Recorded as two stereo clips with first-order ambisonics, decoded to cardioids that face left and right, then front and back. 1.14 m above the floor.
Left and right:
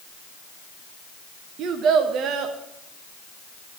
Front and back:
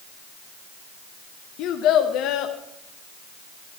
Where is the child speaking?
40° right, 1.0 m.